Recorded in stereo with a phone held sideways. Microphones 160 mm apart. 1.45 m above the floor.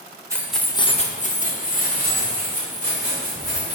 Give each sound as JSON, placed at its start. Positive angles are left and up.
{"t": 0.3, "sound": "keys jangling", "side_deg": -15, "distance_m": 0.7}